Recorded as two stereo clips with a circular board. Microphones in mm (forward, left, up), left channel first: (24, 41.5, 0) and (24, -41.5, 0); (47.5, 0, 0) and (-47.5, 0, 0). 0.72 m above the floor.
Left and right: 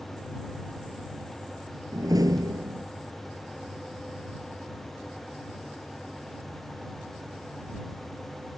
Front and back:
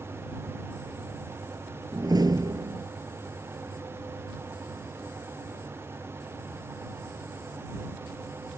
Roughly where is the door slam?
Behind right.